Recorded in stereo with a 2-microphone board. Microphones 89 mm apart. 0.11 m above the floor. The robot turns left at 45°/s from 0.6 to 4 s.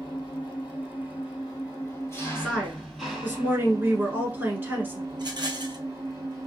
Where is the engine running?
105° left, 2.0 m; by 6.5 s 50° right, 2.0 m.